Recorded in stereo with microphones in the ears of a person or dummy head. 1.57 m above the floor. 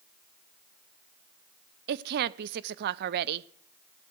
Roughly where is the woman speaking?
Right.